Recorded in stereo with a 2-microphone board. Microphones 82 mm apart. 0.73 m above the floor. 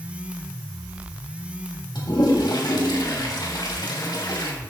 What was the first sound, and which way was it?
A toilet flushing, 65° left (ahead or behind).